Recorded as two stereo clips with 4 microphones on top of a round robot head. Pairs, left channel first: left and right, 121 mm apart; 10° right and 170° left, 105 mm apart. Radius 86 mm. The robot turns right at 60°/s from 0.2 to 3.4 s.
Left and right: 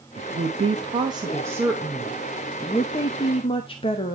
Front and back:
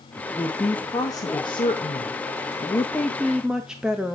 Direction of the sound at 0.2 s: 105° right.